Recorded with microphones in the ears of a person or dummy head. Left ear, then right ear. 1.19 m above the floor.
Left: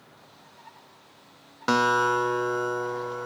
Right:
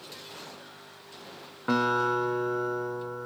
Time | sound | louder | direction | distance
1.7 | a guitar | left 4 dB | 85° left | 0.7 m